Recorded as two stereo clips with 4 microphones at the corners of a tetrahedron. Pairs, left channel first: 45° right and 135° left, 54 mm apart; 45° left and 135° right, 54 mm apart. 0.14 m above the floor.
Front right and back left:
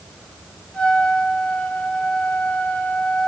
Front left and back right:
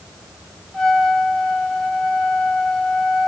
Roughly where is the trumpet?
Ahead right.